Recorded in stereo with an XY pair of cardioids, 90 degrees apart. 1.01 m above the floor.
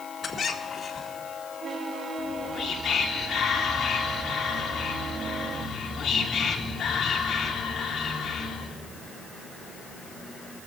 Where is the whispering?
50° left, 1.9 m.